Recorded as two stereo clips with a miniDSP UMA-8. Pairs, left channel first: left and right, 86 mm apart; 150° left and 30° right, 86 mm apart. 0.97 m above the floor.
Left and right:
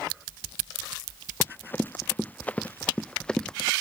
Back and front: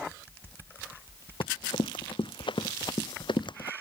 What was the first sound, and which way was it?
Running footsteps, 155° left.